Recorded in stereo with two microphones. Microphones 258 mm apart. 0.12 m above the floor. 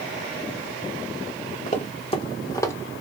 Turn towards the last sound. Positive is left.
turn(degrees=10)  # may be behind; listen again after turning